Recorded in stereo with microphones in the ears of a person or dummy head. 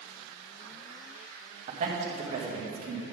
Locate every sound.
1.7 s a man speaking: 40° right (ahead or behind), 2 m